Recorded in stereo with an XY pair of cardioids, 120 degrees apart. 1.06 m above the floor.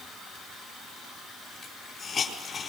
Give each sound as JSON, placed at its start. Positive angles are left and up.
{"t": 1.6, "sound": "a hiss", "azimuth_deg": 40, "distance_m": 4.5}